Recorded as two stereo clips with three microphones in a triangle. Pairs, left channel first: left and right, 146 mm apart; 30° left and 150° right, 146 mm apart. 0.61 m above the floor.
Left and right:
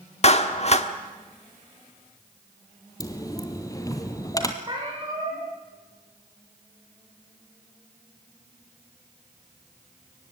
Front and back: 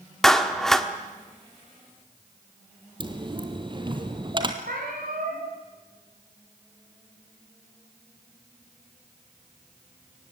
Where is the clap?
115° left, 1.3 m.